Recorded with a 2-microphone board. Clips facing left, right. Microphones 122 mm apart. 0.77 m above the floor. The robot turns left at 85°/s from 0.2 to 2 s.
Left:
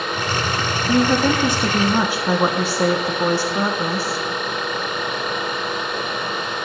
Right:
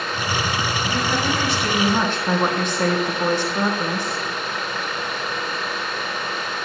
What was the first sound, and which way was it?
A woman speaking, 105° left.